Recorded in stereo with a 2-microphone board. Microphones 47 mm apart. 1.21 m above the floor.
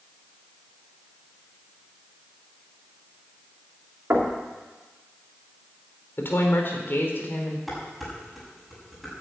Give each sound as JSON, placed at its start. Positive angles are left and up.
{"t": 4.1, "sound": "knocking", "side_deg": -60, "distance_m": 2.5}
{"t": 6.2, "sound": "a woman speaking", "side_deg": 50, "distance_m": 3.0}
{"t": 7.7, "sound": "dishes clattering", "side_deg": 0, "distance_m": 6.0}